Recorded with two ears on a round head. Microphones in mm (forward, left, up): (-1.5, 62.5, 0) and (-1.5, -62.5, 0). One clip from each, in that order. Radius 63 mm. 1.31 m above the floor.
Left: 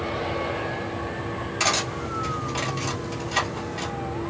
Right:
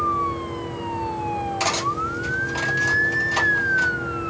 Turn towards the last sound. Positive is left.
turn(degrees=10)  # may be behind; listen again after turning